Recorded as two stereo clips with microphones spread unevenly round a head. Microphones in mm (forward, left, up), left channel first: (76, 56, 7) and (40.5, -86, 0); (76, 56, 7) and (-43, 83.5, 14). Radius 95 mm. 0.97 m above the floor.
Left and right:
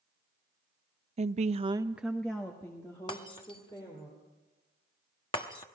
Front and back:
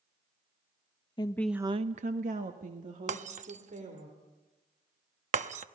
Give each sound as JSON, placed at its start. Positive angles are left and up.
{"t": 1.2, "sound": "a woman speaking", "azimuth_deg": -70, "distance_m": 0.8}
{"t": 3.1, "sound": "breaking glass", "azimuth_deg": 145, "distance_m": 0.9}